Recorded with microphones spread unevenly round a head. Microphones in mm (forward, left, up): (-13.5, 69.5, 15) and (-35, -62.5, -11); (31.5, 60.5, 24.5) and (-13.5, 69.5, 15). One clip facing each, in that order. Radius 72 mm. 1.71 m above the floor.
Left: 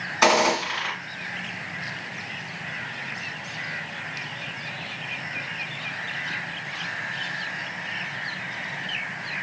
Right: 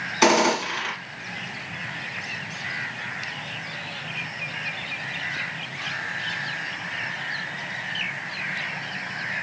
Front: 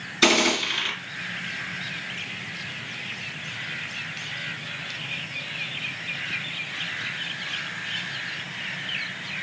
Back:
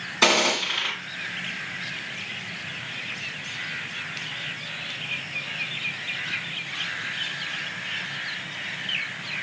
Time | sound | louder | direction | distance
0.2 | a gunshot | right 1 dB, even | 160° right | 2.5 m